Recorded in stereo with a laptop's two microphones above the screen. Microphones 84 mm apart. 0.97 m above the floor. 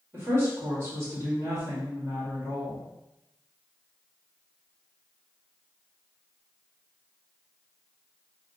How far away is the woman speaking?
About 1.7 m.